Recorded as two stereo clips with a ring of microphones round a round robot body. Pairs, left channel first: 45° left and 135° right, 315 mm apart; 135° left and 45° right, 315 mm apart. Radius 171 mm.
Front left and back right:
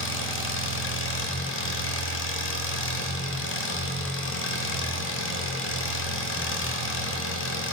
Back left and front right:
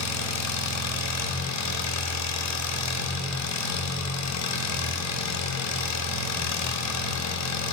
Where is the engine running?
95° left, 0.9 m.